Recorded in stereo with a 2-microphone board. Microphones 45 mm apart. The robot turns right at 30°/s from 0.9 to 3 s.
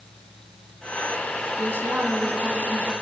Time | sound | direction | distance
1.6 | a woman speaking | 90° right | 3 m